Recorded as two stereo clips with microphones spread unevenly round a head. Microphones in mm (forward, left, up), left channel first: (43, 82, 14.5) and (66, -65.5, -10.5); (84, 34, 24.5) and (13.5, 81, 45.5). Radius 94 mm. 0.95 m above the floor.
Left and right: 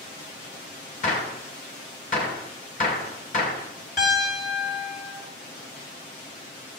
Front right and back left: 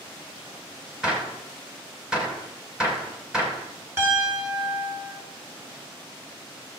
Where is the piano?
80° left, 7.5 m.